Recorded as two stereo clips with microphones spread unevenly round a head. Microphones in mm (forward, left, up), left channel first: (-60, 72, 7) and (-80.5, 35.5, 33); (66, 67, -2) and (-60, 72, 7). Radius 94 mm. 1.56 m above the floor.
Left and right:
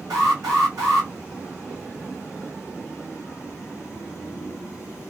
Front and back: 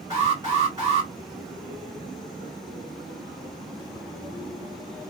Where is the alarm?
110° right, 2.5 m.